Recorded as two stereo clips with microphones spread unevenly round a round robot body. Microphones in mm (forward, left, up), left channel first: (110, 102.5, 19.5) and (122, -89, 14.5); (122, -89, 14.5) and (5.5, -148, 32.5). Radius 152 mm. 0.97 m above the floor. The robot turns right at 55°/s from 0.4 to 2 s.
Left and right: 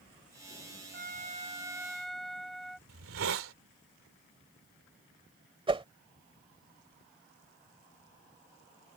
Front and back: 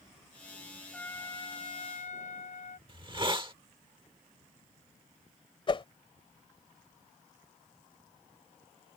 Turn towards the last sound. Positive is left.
turn(degrees=-25)